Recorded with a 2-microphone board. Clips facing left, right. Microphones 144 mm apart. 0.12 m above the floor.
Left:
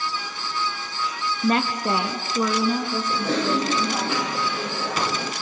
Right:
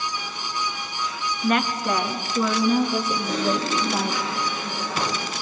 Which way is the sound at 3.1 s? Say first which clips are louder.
Left 1 dB; 70° left (ahead or behind).